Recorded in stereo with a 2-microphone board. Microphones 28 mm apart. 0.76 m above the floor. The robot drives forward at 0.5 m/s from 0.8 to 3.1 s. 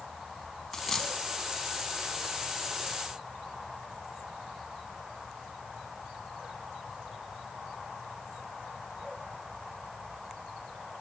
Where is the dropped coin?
15° left (ahead or behind), 2 m.